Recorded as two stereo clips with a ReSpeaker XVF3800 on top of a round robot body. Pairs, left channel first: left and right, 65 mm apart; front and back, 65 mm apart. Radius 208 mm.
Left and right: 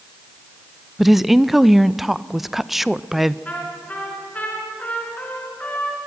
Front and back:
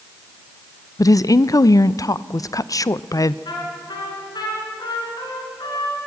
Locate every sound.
1.0 s a woman speaking: 5° right, 0.6 m
3.5 s a trumpet: 20° left, 4 m